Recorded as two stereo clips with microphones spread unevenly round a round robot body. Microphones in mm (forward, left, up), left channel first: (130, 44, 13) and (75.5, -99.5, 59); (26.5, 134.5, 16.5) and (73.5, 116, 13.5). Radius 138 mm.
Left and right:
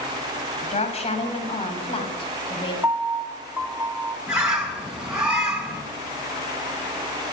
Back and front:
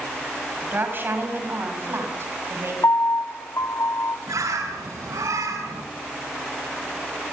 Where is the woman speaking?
25° left, 6.5 m; by 2.7 s 10° left, 7 m.